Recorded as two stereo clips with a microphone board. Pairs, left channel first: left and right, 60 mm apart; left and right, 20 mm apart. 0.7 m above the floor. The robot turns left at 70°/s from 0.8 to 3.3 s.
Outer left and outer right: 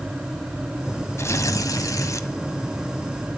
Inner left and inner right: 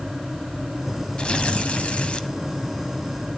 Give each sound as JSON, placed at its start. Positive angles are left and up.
{"t": 1.2, "sound": "tearing paper", "azimuth_deg": 130, "distance_m": 1.2}